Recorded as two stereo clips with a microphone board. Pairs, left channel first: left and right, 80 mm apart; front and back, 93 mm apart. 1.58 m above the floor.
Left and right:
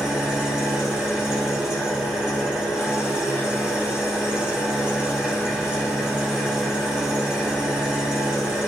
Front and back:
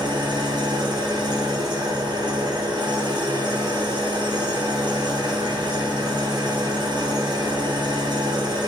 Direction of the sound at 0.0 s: 170° right.